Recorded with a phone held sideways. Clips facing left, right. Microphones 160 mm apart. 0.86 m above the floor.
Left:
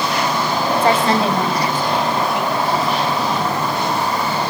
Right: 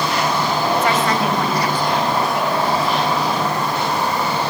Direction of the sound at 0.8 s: 30° left (ahead or behind).